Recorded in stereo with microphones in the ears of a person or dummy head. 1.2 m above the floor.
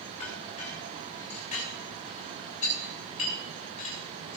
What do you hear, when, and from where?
0.2 s a clink: 40° left (ahead or behind), 3 m